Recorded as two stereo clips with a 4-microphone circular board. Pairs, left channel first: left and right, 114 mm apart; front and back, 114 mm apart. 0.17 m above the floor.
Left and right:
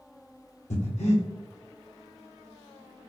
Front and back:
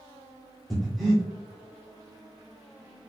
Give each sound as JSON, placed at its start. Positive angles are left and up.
{"t": 0.7, "sound": "breathing", "azimuth_deg": 90, "distance_m": 1.4}